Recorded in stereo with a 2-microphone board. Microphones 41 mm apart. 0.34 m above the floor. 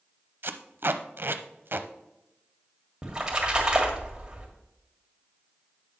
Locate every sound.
0.4 s tape being pulled: 60° right (ahead or behind), 0.5 m
3.0 s a splash: 20° right (ahead or behind), 1.8 m